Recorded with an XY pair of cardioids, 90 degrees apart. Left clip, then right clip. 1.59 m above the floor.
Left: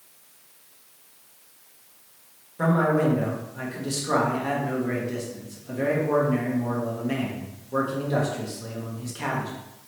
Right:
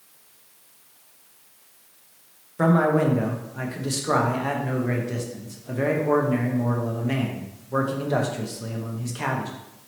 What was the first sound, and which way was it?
A man speaking, 45° right.